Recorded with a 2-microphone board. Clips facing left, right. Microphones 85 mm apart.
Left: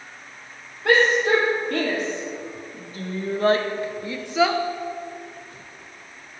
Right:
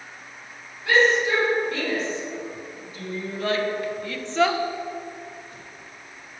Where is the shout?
65° left (ahead or behind), 5 m; by 4.6 s 5° right (ahead or behind), 1.3 m.